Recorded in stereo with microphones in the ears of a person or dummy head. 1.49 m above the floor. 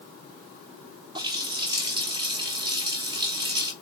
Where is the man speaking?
No man speaking in this recording.